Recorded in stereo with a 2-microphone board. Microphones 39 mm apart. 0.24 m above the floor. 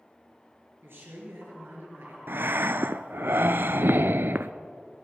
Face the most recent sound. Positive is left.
turn(degrees=-70)  # may be behind; listen again after turning